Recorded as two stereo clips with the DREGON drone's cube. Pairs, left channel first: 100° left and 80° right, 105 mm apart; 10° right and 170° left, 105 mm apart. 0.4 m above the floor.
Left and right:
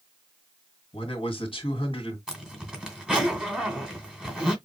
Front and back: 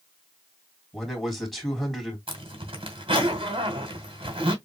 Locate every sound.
0.9 s a man speaking: 80° left, 3 m
2.3 s a zipper: 160° right, 2 m